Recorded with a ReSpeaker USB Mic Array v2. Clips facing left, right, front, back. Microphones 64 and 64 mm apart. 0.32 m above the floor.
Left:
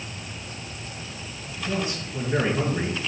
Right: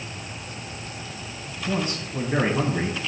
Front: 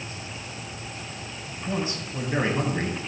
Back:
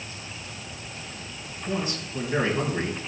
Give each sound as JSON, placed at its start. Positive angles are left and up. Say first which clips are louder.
{"t": 1.7, "sound": "a man speaking", "louder": "right 2 dB, even", "azimuth_deg": -60, "distance_m": 2.0}